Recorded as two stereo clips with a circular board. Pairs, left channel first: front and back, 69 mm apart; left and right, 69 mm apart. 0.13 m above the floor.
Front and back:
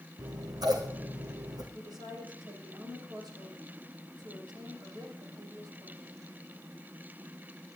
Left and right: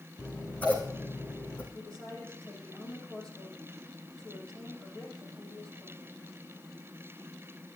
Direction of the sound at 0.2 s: 160° left.